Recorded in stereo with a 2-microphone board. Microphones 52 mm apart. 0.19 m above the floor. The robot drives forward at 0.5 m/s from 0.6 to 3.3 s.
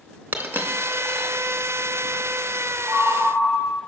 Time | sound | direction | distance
0.3 | a dropped coin | 40° right (ahead or behind) | 0.6 m
2.9 | a ringtone | 25° left (ahead or behind) | 1.3 m